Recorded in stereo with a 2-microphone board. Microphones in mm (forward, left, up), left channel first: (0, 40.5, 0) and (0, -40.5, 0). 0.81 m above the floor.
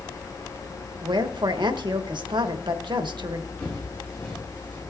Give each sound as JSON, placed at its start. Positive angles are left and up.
{"t": 1.0, "sound": "a woman speaking", "side_deg": -70, "distance_m": 1.2}
{"t": 3.6, "sound": "footsteps", "side_deg": 20, "distance_m": 5.0}